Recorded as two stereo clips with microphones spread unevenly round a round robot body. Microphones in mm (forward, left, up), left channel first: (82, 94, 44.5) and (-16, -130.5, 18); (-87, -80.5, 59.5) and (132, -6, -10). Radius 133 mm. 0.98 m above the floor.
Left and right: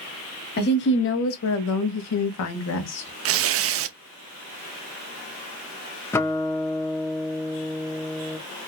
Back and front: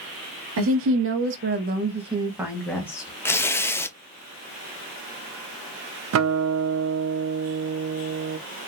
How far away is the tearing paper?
About 0.6 m.